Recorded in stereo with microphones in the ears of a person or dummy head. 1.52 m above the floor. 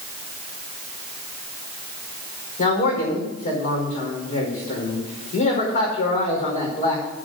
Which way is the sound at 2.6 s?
45° left (ahead or behind).